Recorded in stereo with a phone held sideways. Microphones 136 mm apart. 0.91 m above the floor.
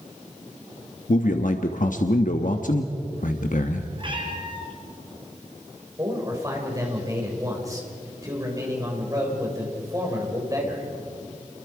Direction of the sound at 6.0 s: 25° right (ahead or behind).